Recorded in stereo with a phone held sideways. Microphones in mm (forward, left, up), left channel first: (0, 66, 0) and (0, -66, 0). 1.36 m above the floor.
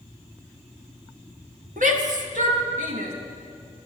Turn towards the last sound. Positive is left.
turn(degrees=-75)  # may be behind; listen again after turning